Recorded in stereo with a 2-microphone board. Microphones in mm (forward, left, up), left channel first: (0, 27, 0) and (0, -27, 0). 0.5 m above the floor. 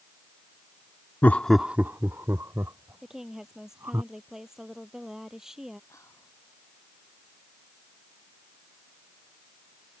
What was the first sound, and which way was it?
Laughter, 35° left (ahead or behind).